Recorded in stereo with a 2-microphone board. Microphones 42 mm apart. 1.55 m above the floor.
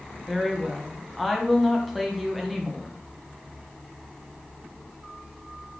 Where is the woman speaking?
Centre (ahead or behind), 1.0 m.